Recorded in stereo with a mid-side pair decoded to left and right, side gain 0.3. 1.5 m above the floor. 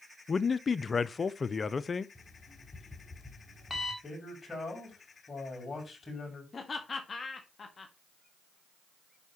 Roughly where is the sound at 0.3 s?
Ahead left.